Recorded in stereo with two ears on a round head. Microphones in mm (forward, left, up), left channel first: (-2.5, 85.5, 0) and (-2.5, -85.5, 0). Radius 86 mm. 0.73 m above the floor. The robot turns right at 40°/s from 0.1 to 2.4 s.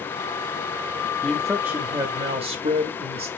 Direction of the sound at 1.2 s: 175° left.